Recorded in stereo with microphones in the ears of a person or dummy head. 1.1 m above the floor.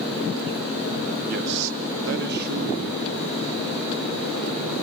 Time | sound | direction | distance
1.3 | a man speaking | 50° right (ahead or behind) | 1.3 m